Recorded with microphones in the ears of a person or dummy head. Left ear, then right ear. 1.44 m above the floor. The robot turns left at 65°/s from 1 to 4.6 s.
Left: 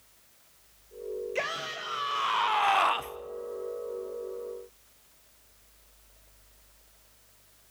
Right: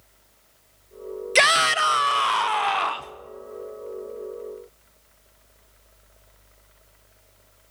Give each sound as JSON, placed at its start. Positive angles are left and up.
{"t": 1.4, "sound": "a shout", "azimuth_deg": -100, "distance_m": 0.6}